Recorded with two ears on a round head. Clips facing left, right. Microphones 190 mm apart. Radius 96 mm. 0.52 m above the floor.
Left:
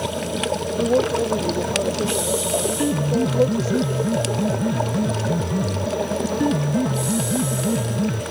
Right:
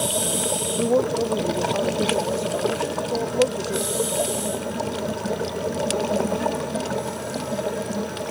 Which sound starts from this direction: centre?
A woman speaking, at 0.8 s.